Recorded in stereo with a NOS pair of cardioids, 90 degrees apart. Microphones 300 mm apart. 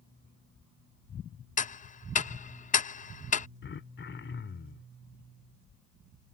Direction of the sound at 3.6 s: 40° left.